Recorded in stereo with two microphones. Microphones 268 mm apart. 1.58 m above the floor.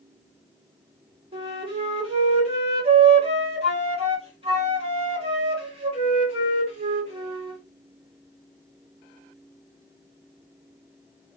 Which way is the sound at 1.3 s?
20° right (ahead or behind).